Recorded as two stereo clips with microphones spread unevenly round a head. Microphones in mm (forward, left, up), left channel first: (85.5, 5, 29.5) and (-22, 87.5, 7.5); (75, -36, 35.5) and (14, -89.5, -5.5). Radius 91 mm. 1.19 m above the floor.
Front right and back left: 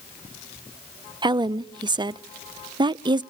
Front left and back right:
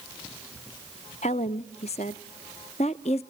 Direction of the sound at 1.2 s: 85° left.